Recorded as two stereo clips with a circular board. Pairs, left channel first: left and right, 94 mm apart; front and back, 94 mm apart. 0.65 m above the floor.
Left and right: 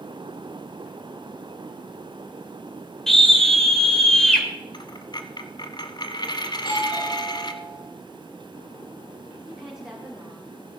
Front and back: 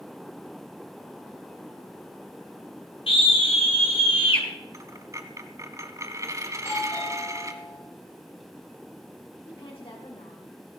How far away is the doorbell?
About 8 m.